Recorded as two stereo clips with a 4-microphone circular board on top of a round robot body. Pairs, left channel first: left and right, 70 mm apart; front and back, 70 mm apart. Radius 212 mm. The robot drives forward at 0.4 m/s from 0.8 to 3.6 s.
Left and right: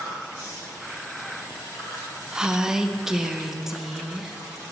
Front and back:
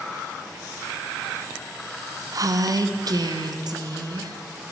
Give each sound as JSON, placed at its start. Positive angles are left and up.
{"t": 2.3, "sound": "a woman speaking", "azimuth_deg": -165, "distance_m": 0.8}